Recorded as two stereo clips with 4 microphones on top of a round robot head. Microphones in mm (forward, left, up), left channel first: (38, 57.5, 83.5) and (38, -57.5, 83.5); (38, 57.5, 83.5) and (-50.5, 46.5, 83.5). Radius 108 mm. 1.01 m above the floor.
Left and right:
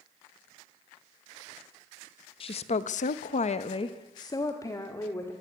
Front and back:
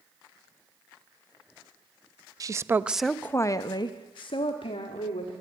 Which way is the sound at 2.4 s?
135° left.